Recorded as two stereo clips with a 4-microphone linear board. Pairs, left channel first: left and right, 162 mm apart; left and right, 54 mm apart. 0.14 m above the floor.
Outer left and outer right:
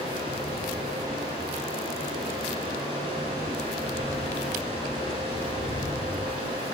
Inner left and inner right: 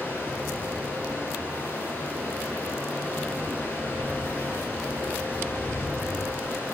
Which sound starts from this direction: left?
Running water, at 0.0 s.